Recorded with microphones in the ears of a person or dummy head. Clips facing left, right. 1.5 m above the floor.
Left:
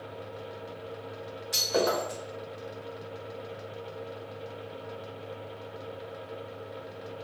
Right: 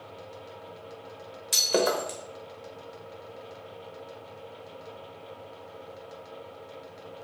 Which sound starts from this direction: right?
Breaking glass, at 1.5 s.